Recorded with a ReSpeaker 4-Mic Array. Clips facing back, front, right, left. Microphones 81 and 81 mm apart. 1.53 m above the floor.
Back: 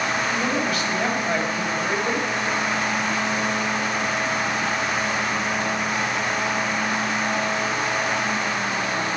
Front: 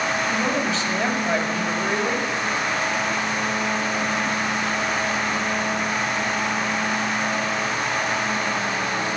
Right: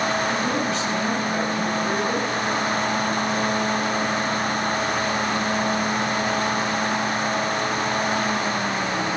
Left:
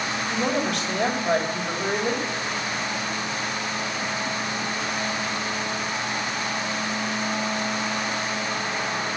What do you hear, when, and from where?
0.3 s a man speaking: 65° left, 3 m